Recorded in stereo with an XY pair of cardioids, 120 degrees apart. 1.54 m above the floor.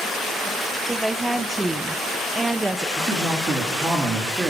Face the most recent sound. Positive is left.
turn(degrees=-30)